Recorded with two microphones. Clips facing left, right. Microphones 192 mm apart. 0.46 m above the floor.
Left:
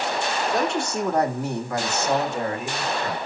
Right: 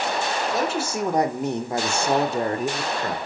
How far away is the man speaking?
About 1.6 m.